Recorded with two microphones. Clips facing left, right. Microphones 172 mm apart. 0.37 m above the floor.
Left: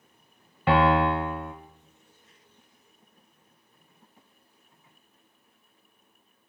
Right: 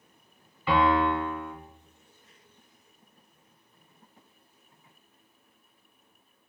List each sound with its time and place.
0.7 s a piano: 65° left (ahead or behind), 0.8 m